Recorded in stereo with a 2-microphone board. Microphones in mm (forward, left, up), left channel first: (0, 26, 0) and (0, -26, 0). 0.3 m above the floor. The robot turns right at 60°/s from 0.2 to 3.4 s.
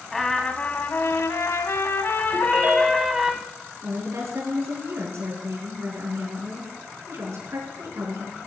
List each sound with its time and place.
0.1 s a trumpet: 10° left, 1.1 m; by 3.3 s 165° right, 1.1 m
2.3 s a ringtone: 135° right, 1.2 m; by 3.2 s 80° right, 1.2 m
3.8 s a woman speaking: 65° right (ahead or behind), 4 m